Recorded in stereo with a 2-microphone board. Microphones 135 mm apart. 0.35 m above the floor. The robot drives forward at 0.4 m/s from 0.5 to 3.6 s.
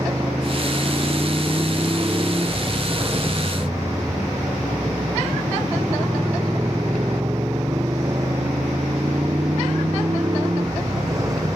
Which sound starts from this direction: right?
A motorcycle, at 0.0 s.